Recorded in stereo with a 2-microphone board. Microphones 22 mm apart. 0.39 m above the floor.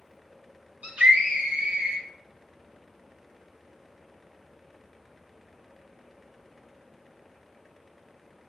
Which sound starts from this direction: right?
A scream, at 0.8 s.